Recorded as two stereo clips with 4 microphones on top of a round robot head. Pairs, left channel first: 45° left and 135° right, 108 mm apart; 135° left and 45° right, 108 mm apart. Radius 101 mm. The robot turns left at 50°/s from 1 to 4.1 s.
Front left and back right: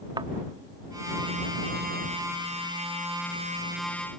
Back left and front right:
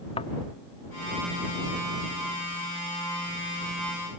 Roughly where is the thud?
Behind.